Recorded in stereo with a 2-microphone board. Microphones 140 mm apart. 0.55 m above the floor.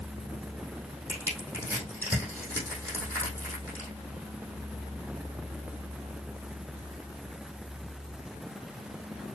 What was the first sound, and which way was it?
Crushing, 15° left (ahead or behind).